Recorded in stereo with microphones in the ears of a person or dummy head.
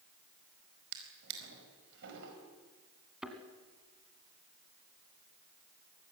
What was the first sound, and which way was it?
A drawer, 70° right (ahead or behind).